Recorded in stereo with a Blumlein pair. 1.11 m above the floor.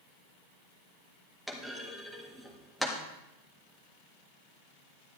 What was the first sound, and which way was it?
A clunk, straight ahead.